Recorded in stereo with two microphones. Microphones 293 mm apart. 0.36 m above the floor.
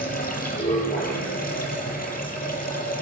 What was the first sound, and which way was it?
Running water, 30° left (ahead or behind).